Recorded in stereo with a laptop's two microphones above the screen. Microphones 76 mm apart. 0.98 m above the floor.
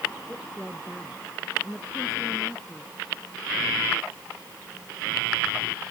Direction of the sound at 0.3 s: 5° left (ahead or behind).